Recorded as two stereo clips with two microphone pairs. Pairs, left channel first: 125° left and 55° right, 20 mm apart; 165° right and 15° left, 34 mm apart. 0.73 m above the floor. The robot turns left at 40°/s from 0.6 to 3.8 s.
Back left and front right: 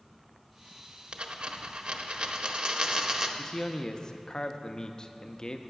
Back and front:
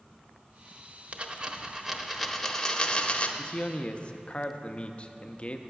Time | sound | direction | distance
1.1 | a dropped coin | 30° right | 0.7 m
3.4 | a man speaking | 175° left | 0.5 m